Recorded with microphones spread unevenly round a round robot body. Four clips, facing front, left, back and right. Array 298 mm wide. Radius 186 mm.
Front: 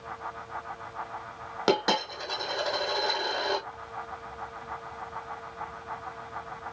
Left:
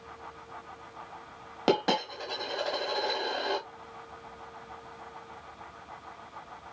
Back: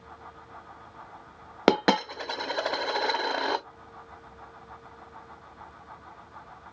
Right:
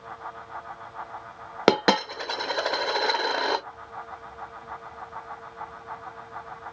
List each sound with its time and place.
1.7 s a dropped coin: 140° right, 0.5 m